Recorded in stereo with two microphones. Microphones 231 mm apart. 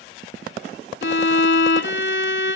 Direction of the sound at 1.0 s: 55° left (ahead or behind).